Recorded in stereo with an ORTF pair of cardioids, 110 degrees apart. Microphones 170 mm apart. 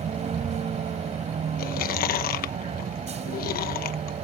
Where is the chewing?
65° left.